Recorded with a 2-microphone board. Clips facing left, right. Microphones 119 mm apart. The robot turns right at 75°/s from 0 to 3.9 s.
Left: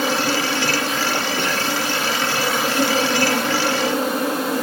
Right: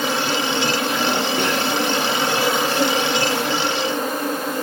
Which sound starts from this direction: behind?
An insect, at 0.0 s.